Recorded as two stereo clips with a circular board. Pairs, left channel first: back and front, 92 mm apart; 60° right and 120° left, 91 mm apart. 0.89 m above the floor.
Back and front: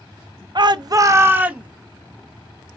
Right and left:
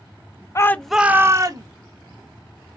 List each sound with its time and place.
0.6 s a shout: 15° right, 0.5 m; by 1.7 s 75° left, 1.0 m